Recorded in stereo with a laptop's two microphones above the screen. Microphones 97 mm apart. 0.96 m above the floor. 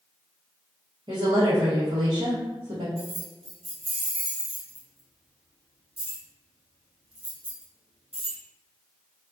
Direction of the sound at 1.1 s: 55° right (ahead or behind).